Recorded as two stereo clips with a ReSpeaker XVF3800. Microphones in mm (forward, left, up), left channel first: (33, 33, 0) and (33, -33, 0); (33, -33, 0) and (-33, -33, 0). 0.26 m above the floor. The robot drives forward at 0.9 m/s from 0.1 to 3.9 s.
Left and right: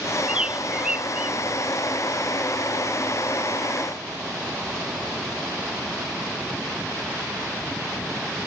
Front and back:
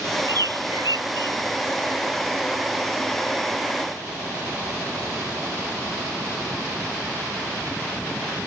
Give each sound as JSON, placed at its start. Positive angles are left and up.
{"t": 0.3, "sound": "a bird", "azimuth_deg": -165}